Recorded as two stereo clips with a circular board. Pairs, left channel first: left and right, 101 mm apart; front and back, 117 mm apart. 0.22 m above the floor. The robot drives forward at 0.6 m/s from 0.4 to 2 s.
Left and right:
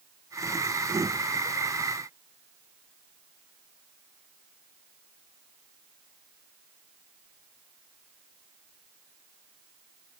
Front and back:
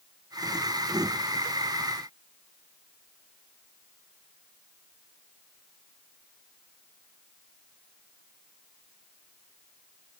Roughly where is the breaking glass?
No breaking glass in this recording.